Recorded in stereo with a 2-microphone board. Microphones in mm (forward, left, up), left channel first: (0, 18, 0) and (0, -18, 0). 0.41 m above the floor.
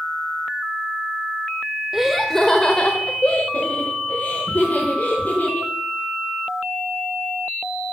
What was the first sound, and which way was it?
Laughter, 10° right (ahead or behind).